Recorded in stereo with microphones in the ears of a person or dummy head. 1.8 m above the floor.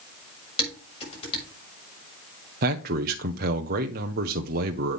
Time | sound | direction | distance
0.6 | dishes clattering | 35° left (ahead or behind) | 5.5 m
2.6 | a man speaking | 50° right (ahead or behind) | 1.0 m